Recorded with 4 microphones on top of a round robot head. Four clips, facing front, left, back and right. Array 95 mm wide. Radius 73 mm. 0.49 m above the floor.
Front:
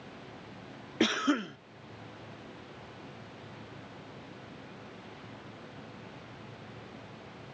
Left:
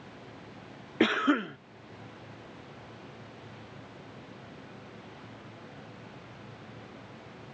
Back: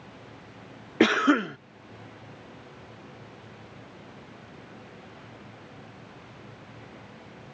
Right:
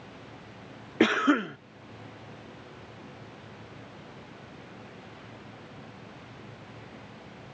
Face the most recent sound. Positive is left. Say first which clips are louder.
# right 3 dB, back 8 dB
turn(degrees=-170)